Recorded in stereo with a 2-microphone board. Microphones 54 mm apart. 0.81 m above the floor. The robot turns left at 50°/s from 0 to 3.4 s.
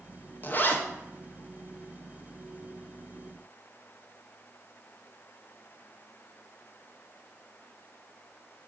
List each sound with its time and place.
0.4 s a zipper: 35° left (ahead or behind), 0.5 m